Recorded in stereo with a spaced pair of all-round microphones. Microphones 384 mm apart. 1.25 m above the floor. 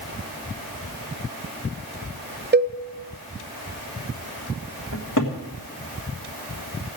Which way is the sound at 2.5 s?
25° right (ahead or behind).